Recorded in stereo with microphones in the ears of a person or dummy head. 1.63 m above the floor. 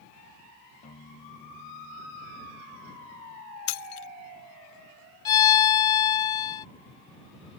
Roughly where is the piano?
Left.